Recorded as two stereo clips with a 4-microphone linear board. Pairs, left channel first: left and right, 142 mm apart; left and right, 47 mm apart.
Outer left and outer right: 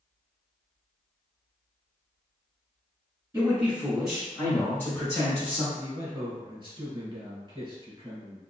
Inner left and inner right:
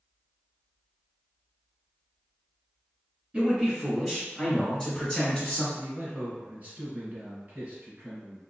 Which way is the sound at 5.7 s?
35° right (ahead or behind).